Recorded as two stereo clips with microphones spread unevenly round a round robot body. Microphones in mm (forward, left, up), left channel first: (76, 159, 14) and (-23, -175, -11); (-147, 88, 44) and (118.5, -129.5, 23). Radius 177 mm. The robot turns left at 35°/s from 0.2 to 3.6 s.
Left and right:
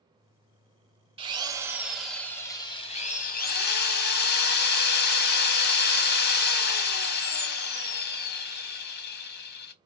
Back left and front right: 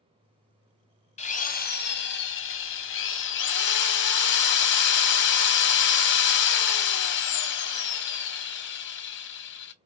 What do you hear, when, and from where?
1.2 s a drill: 160° right, 0.8 m; by 9.7 s 115° left, 0.8 m